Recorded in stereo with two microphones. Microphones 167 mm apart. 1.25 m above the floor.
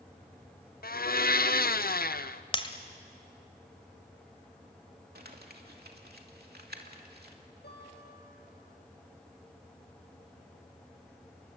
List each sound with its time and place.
0.8 s a blender: 65° left (ahead or behind), 0.6 m
2.5 s breaking glass: 30° left (ahead or behind), 1.7 m
5.2 s crumpling: 70° right (ahead or behind), 2.5 m
7.6 s a guitar: 85° left, 7.5 m